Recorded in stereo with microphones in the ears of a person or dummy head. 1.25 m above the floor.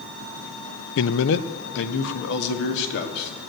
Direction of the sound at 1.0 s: 65° left (ahead or behind).